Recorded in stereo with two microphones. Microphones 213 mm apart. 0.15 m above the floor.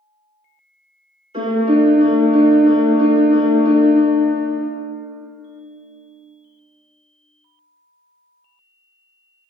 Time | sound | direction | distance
1.3 | a piano | 30° right (ahead or behind) | 0.6 m